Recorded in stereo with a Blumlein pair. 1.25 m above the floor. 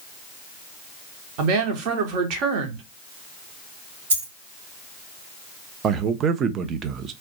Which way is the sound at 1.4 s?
40° right.